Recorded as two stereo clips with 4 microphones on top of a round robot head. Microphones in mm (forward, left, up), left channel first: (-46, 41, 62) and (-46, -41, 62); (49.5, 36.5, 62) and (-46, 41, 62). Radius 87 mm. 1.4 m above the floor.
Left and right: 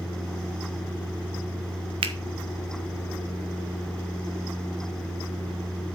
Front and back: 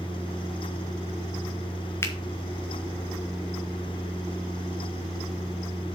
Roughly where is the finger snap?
Right.